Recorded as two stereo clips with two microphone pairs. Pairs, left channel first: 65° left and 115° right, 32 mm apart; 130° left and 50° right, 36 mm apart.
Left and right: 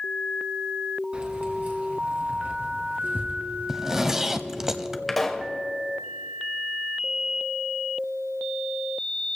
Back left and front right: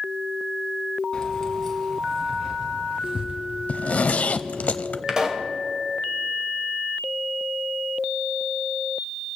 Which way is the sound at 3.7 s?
165° left.